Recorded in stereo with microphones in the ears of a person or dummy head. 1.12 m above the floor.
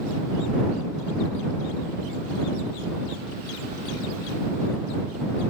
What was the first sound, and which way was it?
Only background noise.